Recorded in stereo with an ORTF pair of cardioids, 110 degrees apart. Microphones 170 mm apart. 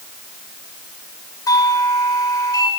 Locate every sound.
1.5 s a doorbell: 20° left, 9 m